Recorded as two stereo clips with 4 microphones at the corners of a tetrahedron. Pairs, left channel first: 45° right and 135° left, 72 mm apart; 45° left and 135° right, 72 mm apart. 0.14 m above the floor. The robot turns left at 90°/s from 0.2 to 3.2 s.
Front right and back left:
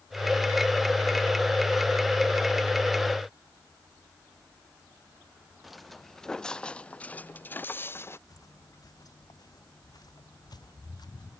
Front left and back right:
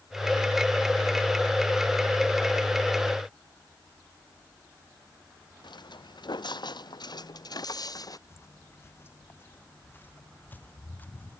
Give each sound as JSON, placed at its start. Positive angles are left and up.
{"t": 5.6, "sound": "footsteps", "azimuth_deg": 45}
{"t": 8.3, "sound": "footsteps", "azimuth_deg": -10}